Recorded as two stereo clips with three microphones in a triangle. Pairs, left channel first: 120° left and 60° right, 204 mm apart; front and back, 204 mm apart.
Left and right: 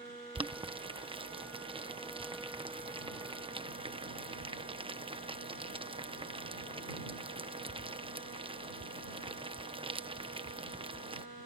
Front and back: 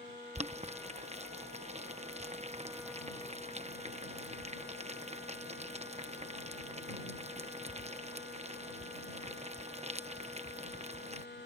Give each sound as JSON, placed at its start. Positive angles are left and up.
{"t": 0.3, "sound": "boiling", "azimuth_deg": -125}